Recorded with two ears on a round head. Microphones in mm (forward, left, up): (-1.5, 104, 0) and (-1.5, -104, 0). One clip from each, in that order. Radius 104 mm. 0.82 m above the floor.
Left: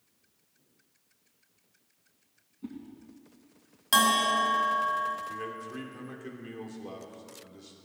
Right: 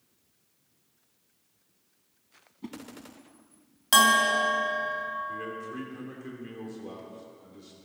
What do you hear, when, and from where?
2.6 s a whoosh: 50° right (ahead or behind), 1.7 m
3.9 s a bell: 10° right (ahead or behind), 1.9 m
5.3 s a man speaking: 15° left (ahead or behind), 2.5 m